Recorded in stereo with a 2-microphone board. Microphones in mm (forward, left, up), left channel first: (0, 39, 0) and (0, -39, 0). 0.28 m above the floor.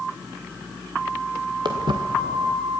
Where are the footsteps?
80° right, 1.8 m.